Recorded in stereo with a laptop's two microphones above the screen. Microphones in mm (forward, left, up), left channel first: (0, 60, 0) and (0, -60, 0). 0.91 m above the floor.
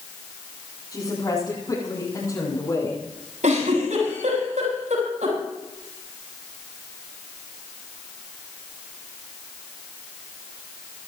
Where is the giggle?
80° right, 7.5 m.